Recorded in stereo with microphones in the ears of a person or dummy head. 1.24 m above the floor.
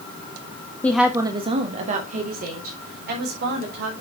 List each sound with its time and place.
0.8 s a woman speaking: 15° left (ahead or behind), 0.8 m; by 4.0 s 60° right (ahead or behind), 5 m